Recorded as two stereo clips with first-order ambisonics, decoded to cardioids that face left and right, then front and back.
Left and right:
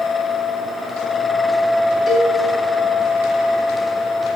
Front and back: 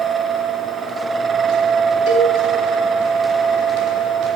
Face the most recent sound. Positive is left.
turn(degrees=20)